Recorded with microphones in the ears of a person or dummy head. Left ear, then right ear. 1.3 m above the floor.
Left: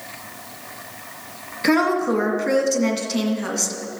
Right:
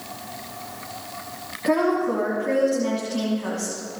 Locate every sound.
1.6 s a woman speaking: 65° left (ahead or behind), 2 m